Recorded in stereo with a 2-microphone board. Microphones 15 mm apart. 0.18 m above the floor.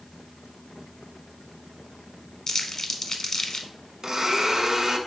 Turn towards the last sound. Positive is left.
turn(degrees=-40)  # may be behind; listen again after turning